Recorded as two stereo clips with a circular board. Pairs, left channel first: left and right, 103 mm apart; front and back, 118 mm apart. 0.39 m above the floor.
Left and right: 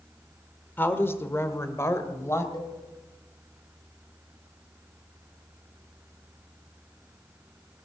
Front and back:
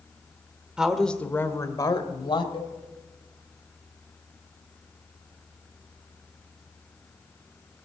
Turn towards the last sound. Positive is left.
turn(degrees=40)